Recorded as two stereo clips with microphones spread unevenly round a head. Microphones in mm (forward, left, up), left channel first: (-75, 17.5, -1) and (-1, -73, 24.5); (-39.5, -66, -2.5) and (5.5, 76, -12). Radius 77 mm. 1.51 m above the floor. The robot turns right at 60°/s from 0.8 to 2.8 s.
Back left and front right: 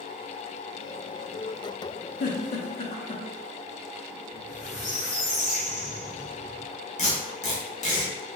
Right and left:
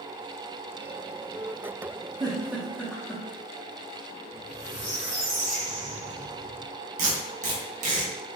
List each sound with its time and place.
2.2 s a giggle: 135° left, 0.6 m; by 3.2 s 170° left, 0.6 m
4.3 s a squeak: 135° left, 1.8 m
7.0 s tape being pulled: 100° left, 0.6 m